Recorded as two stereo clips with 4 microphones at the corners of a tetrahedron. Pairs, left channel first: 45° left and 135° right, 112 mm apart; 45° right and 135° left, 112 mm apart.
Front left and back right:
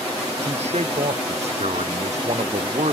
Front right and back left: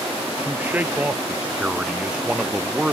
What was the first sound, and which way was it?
A man speaking, 150° right.